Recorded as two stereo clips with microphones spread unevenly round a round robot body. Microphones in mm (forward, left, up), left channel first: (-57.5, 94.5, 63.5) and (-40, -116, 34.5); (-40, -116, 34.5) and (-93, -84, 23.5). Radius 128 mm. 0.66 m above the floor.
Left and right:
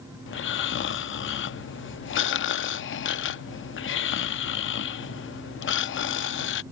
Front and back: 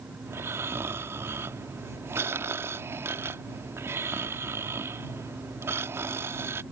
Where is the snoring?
115° left.